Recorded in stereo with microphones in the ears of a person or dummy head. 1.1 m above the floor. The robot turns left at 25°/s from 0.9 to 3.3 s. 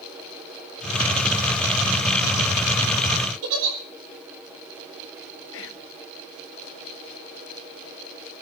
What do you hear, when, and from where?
3.4 s a giggle: 80° right, 5.5 m
5.5 s whispering: 65° left (ahead or behind), 1.5 m